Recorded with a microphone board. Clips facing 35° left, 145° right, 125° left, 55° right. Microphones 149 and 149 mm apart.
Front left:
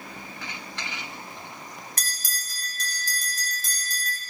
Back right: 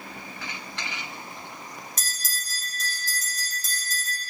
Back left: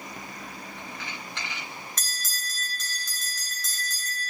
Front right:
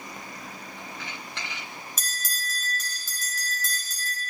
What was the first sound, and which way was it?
A bell, 25° left.